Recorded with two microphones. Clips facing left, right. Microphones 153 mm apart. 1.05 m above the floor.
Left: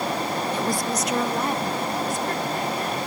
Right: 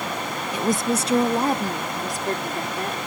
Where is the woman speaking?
10° right (ahead or behind); by 3.0 s 40° right (ahead or behind).